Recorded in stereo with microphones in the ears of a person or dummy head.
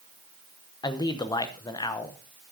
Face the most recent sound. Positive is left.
turn(degrees=15)  # may be behind; listen again after turning